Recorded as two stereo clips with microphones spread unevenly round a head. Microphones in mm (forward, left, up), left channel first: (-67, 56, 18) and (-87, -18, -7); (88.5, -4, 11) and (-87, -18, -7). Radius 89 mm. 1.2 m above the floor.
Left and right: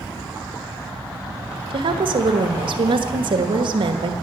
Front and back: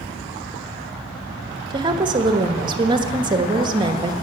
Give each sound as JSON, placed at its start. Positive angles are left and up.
{"t": 1.7, "sound": "a woman speaking", "azimuth_deg": -110, "distance_m": 1.3}